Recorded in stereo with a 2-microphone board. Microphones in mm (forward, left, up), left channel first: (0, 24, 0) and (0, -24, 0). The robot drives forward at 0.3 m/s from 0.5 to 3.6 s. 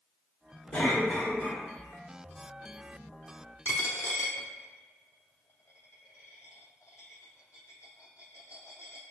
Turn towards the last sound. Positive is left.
turn(degrees=75)  # may be behind; listen again after turning